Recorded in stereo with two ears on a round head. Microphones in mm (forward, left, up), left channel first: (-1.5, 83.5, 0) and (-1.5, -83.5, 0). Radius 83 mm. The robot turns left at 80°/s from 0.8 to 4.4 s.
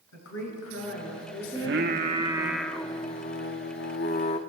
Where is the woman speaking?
85° left, 8 m; by 2.5 s 55° right, 8 m.